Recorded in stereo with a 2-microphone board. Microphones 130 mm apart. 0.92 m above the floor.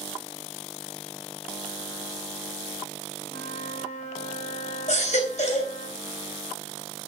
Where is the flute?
75° left (ahead or behind), 4.5 m.